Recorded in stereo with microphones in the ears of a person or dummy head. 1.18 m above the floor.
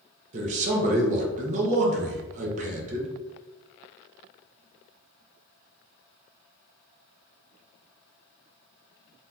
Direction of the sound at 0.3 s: 35° right (ahead or behind).